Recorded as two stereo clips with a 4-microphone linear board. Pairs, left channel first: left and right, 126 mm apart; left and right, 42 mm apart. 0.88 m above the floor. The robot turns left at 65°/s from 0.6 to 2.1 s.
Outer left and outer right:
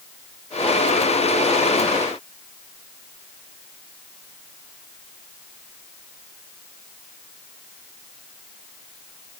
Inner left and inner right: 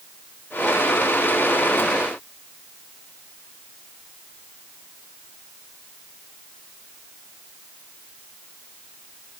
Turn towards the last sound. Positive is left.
No sound to turn to.